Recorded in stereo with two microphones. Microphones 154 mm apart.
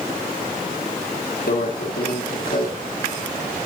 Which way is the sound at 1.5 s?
70° left (ahead or behind).